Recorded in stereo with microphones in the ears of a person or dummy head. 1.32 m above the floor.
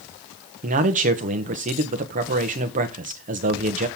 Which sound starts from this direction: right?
A man speaking, at 0.6 s.